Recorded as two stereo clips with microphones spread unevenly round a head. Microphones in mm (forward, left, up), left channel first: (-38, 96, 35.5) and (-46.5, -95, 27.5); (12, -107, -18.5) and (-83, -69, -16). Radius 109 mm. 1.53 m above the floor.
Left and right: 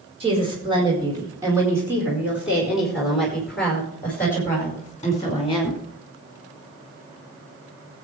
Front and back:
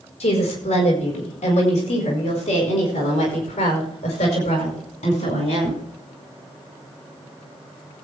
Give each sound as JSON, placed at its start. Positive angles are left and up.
{"t": 0.2, "sound": "a woman speaking", "azimuth_deg": -25, "distance_m": 5.0}